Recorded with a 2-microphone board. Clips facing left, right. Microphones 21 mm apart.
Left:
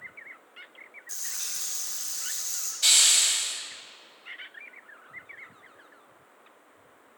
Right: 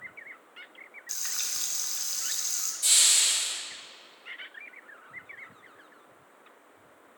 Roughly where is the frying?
Right.